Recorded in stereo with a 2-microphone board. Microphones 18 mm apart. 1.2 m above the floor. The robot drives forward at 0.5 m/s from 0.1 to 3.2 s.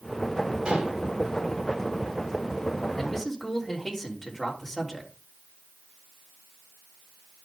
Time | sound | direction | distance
0.7 | dishes clattering | 65° right (ahead or behind) | 2.5 m
3.0 | a man speaking | 10° left (ahead or behind) | 3 m